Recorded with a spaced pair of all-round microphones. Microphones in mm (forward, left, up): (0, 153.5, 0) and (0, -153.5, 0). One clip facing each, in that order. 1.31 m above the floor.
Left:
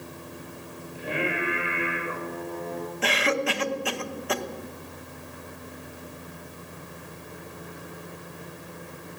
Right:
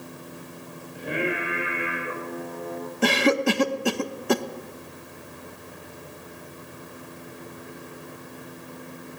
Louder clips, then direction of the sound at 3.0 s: Right 7 dB; 55° right (ahead or behind).